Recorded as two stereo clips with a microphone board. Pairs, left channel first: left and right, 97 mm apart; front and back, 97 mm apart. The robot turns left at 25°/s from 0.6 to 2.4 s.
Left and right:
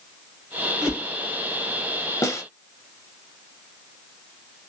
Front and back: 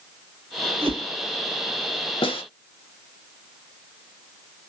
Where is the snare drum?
30° left, 0.7 m; by 2.4 s 25° left, 0.7 m.